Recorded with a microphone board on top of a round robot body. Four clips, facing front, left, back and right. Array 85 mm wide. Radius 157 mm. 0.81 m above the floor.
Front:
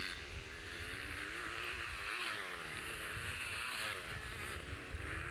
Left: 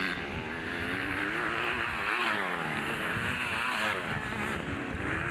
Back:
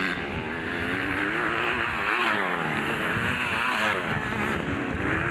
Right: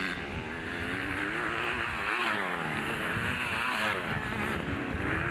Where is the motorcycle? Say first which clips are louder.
Left 1 dB, back 20 dB; 175° left; by 5.3 s 175° right.